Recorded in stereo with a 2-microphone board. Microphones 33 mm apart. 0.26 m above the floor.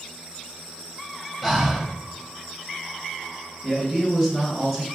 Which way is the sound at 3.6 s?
Centre (ahead or behind).